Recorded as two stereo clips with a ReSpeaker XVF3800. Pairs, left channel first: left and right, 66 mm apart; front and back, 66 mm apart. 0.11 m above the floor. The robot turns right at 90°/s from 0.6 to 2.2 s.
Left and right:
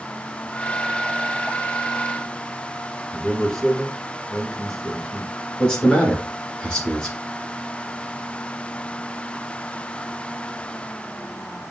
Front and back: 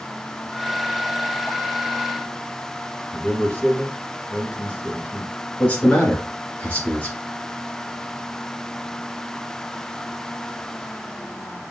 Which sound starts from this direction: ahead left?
A man speaking, at 5.6 s.